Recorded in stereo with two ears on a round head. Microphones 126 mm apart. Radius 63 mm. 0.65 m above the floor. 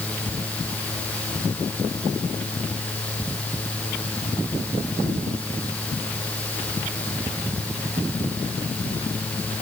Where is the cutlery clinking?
I don't hear cutlery clinking.